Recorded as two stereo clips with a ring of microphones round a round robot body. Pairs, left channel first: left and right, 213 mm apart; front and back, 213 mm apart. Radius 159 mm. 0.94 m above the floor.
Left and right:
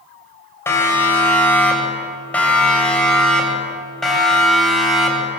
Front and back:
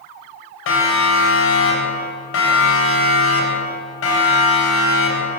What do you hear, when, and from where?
0.7 s a siren: 10° left, 7.5 m; by 5.4 s straight ahead, 9.5 m